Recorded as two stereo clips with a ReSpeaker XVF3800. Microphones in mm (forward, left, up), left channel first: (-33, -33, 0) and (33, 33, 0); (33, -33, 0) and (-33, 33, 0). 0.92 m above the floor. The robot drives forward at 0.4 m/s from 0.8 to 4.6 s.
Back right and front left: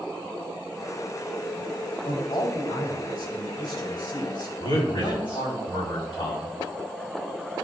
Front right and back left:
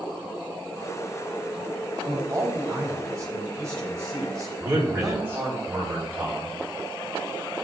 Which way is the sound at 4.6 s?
165° right.